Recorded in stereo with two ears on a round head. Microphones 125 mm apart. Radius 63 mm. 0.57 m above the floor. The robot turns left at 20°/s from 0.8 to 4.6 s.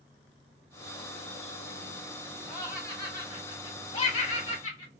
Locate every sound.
2.5 s laughter: 20° left (ahead or behind), 2 m; by 4.9 s 55° left (ahead or behind), 2 m